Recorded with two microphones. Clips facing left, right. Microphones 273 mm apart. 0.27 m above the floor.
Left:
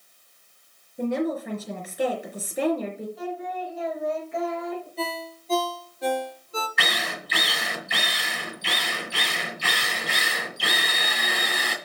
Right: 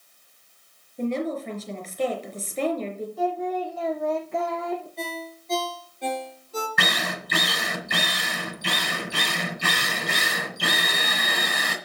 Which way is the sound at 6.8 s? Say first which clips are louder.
Right 2 dB; 50° right (ahead or behind).